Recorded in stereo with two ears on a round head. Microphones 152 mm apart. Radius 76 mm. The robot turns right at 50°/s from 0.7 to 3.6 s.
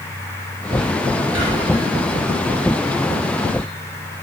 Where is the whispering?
70° right (ahead or behind), 1.6 m; by 1.9 s 45° right (ahead or behind), 1.6 m.